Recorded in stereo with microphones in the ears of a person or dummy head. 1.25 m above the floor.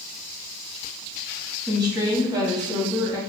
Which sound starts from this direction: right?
A woman speaking, at 1.7 s.